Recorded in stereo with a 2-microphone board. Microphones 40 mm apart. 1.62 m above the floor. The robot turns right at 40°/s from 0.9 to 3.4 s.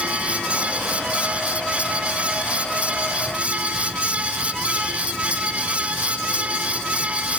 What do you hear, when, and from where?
Only background noise.